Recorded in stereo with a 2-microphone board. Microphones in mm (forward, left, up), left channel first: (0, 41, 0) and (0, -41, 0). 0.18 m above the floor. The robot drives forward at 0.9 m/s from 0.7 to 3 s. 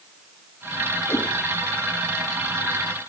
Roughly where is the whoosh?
Left.